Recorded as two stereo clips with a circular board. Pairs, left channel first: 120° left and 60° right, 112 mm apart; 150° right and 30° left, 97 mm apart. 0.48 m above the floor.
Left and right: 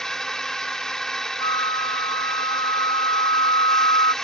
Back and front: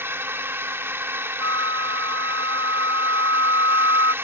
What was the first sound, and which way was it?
A drone, 40° left.